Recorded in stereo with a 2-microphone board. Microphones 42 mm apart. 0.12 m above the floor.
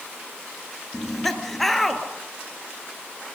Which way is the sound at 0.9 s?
5° left (ahead or behind).